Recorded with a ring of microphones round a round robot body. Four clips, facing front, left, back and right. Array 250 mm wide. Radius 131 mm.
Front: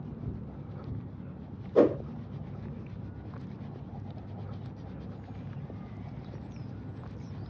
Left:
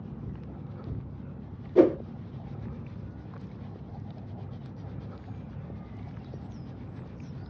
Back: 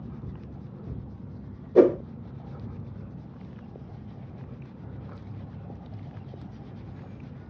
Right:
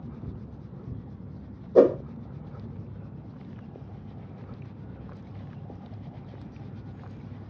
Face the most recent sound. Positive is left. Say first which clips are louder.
# right 2 dB, back 5 dB
turn(degrees=-110)